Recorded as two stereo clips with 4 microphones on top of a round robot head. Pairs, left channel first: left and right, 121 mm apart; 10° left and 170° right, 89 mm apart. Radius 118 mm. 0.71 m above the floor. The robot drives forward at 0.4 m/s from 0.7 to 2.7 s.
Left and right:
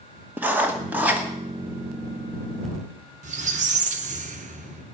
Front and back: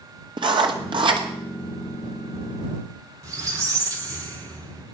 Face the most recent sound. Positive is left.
turn(degrees=-115)